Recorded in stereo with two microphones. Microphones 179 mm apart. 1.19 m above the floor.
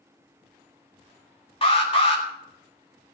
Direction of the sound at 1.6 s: 30° left (ahead or behind).